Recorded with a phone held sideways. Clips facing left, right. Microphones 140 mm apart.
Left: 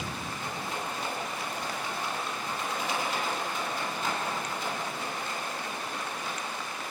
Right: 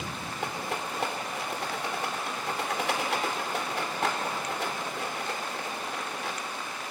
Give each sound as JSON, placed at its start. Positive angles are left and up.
{"t": 0.4, "sound": "a rattle", "side_deg": -75, "distance_m": 3.0}